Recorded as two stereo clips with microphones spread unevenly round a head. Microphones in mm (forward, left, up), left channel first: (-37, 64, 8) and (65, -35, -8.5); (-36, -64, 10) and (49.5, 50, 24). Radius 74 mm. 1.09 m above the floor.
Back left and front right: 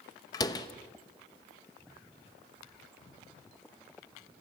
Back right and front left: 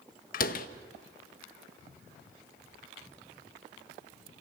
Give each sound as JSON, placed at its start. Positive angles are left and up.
{"t": 0.3, "sound": "a door slam", "azimuth_deg": -155, "distance_m": 0.9}